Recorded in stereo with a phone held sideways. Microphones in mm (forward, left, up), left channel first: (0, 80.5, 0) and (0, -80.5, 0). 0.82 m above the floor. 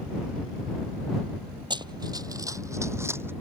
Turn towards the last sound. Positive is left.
turn(degrees=-15)  # may be behind; listen again after turning